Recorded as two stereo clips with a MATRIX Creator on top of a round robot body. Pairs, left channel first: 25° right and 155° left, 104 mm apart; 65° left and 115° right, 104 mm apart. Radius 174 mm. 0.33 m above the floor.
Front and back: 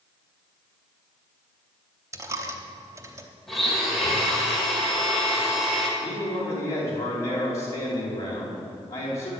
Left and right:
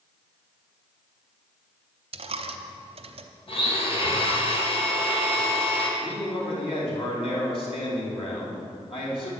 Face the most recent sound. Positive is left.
turn(degrees=40)